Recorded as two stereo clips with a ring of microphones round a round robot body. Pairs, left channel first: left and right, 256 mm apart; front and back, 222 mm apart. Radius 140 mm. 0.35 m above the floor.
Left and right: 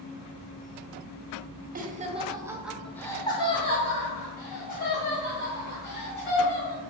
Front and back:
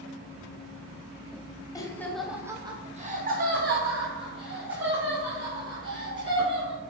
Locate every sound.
1.8 s laughter: 65° right, 1.3 m; by 6.8 s 140° left, 4.5 m